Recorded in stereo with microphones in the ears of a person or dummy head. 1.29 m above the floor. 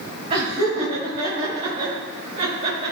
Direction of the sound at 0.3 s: 25° right (ahead or behind).